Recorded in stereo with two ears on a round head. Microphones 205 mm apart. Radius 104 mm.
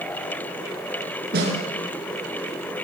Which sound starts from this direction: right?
A snare drum, at 1.3 s.